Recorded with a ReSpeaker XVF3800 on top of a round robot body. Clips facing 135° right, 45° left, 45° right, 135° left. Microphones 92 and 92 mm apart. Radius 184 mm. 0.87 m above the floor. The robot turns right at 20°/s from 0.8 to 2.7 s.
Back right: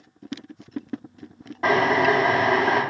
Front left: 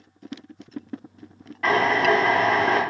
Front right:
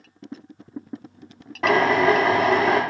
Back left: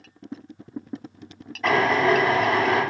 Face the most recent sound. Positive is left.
turn(degrees=-50)